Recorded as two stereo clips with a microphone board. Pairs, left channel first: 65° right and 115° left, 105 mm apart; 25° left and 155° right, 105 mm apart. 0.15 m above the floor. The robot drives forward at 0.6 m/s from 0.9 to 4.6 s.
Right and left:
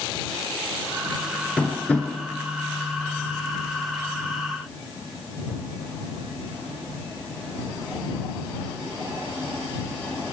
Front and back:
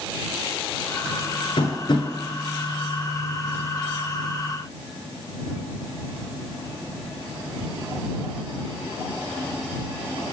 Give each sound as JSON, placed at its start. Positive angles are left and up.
{"t": 1.6, "sound": "tapping", "azimuth_deg": 5, "distance_m": 1.6}